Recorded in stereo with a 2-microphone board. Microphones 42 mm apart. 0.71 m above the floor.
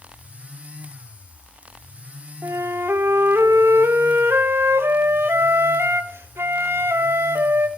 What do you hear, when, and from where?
2.4 s a flute: 70° right (ahead or behind), 0.9 m